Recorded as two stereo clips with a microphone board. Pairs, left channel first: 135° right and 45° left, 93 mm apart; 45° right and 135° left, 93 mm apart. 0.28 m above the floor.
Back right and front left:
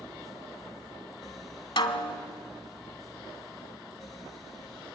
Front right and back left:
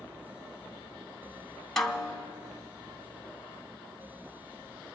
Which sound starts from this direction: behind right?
A snare drum, at 1.8 s.